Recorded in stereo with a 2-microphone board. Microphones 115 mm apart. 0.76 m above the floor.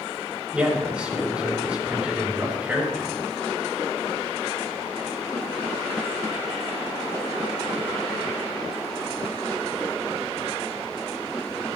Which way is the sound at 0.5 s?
10° right (ahead or behind).